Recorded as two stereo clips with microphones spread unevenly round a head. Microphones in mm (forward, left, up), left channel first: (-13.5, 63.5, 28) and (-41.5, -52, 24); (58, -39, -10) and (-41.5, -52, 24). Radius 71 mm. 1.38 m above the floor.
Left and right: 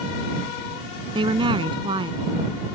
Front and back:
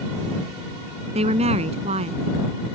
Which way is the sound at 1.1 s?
155° right.